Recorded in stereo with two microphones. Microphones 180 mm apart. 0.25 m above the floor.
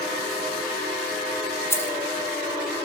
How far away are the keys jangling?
About 0.6 m.